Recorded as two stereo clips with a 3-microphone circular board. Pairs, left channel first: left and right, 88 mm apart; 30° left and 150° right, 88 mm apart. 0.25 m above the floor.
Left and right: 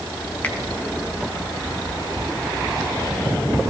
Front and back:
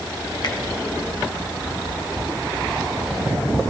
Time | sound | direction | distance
0.4 | a finger snap | 20° left | 2.0 m